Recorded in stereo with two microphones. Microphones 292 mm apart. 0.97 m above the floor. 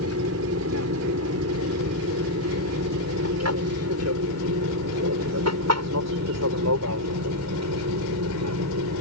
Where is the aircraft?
55° right (ahead or behind); by 9.0 s 65° right (ahead or behind).